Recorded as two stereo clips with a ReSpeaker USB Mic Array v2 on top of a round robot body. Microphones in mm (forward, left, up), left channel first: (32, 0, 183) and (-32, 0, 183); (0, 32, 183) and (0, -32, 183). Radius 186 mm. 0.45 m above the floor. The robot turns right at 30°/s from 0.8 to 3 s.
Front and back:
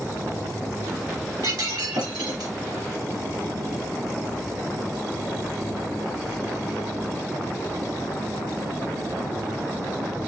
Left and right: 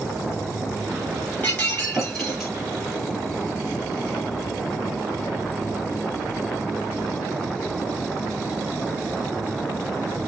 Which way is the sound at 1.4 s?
155° left.